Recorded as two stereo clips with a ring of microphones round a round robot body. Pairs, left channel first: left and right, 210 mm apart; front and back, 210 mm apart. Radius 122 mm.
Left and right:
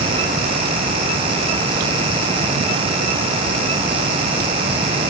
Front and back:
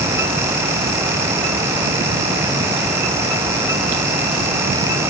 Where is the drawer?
I don't hear a drawer.